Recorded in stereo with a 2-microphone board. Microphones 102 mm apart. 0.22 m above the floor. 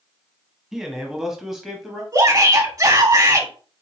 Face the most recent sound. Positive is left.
turn(degrees=-35)  # may be behind; listen again after turning